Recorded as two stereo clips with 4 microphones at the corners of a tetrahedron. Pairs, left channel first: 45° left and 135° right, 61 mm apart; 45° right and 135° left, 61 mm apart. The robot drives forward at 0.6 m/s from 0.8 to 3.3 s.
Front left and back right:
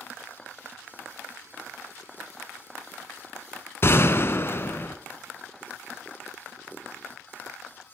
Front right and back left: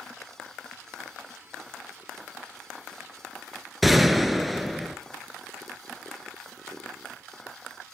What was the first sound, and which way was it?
A gunshot, 50° left.